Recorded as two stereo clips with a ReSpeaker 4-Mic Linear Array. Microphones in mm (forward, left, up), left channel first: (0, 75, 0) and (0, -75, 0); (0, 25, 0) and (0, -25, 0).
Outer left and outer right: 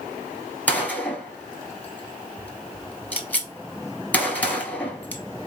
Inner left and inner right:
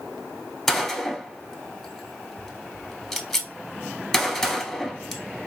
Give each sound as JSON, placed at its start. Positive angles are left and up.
{"t": 0.7, "sound": "a gunshot", "side_deg": 10, "distance_m": 0.9}